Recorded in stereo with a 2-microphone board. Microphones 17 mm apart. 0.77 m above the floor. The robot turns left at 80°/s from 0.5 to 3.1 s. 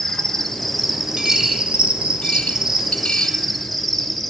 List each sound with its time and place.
0.0 s an insect: 25° left, 1.1 m; by 4.3 s 175° left, 1.1 m
1.2 s a dropped coin: 35° right (ahead or behind), 2.5 m; by 3.4 s 60° left (ahead or behind), 2.5 m